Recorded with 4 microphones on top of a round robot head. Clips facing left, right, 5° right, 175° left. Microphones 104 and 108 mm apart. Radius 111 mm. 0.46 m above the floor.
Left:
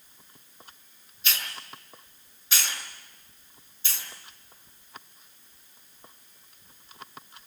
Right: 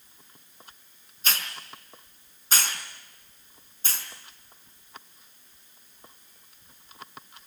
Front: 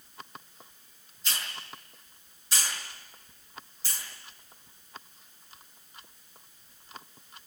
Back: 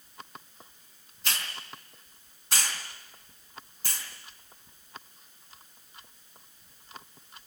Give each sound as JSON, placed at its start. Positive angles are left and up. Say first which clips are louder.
{"t": 1.2, "sound": "a hiss", "louder": "right 2 dB, back 2 dB", "azimuth_deg": -140, "distance_m": 4.5}